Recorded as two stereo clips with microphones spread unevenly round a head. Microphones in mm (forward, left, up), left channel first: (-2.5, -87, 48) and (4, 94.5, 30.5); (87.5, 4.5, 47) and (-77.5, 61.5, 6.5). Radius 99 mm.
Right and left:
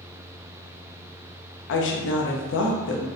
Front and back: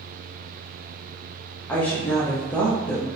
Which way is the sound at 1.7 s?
105° right.